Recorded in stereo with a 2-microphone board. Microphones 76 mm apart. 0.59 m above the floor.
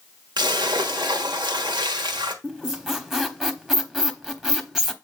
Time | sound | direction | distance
0.4 | a splash | 75° right (ahead or behind) | 1.4 m
2.4 | a squeak | 5° right (ahead or behind) | 0.9 m